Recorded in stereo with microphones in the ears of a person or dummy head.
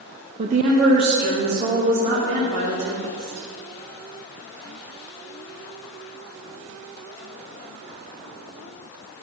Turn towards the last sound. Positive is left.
turn(degrees=-60)  # may be behind; listen again after turning